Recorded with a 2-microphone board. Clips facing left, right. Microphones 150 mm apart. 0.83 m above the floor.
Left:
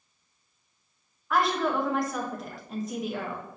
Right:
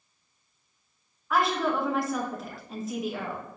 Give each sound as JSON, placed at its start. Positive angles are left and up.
{"t": 1.3, "sound": "a woman speaking", "side_deg": 0, "distance_m": 0.8}